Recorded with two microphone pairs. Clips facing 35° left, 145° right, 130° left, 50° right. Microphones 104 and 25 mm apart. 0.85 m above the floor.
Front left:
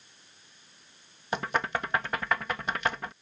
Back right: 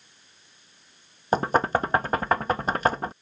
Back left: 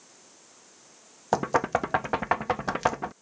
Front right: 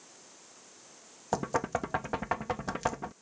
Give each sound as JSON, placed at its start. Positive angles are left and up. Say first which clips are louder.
{"t": 1.3, "sound": "knocking", "louder": "back right 8 dB, back left 6 dB", "azimuth_deg": 180}